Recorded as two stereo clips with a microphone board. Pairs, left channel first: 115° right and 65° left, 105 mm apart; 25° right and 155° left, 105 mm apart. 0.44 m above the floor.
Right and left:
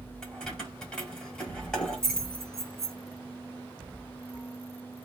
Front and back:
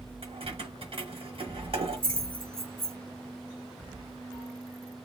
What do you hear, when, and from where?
0.2 s keys jangling: 165° left, 1.3 m